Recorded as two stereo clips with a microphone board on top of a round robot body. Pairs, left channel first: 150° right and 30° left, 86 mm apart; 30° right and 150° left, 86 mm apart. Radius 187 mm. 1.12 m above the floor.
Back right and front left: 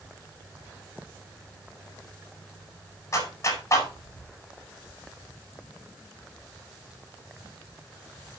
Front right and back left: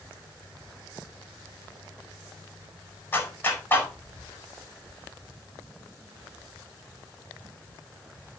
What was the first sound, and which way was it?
A clap, 95° right.